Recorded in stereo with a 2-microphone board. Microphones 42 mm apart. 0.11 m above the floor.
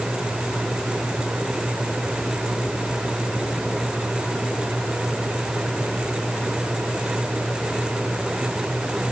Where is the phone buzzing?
I don't hear a phone buzzing.